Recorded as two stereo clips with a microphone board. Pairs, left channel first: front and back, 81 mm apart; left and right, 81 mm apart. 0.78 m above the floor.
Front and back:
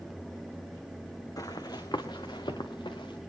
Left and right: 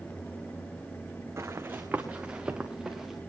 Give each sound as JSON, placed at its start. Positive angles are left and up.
{"t": 1.4, "sound": "running footsteps", "azimuth_deg": -40, "distance_m": 2.5}